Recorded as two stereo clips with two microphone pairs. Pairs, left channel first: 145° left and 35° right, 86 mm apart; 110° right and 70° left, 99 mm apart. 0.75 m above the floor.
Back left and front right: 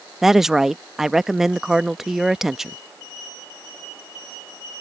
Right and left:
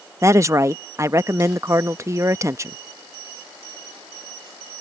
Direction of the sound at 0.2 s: 50° left.